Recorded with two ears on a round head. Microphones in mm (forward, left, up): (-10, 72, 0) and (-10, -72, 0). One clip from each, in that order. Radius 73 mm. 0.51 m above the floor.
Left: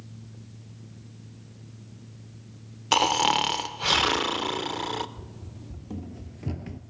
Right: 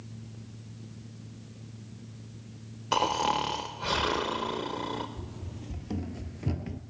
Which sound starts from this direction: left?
Snoring, at 2.9 s.